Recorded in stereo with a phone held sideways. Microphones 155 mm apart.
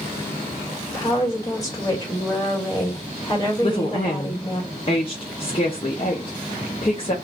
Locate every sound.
0.9 s a woman speaking: 20° left (ahead or behind), 1.5 m
3.6 s a woman speaking: 35° left (ahead or behind), 0.7 m